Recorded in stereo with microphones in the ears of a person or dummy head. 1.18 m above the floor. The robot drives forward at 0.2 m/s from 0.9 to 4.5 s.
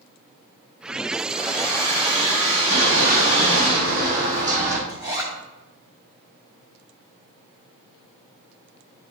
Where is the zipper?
20° right (ahead or behind), 3.5 m.